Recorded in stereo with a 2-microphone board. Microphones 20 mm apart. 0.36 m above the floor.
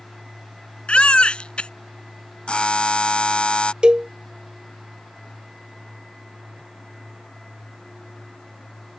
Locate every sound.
0.9 s a baby crying: 60° left (ahead or behind)
2.5 s a buzzer: 55° left (ahead or behind)
3.8 s a cowbell: 45° right (ahead or behind)